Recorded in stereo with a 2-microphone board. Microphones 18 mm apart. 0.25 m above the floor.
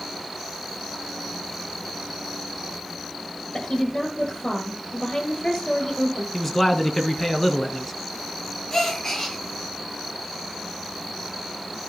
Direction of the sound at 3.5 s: 50° left (ahead or behind).